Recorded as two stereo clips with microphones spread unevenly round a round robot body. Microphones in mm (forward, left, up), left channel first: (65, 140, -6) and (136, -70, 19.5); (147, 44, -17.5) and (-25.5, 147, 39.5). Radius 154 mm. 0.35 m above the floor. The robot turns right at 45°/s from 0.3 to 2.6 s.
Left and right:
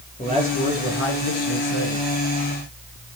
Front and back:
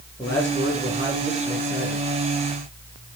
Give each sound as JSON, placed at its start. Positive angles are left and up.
{"t": 0.2, "sound": "a man speaking", "azimuth_deg": 45, "distance_m": 10.0}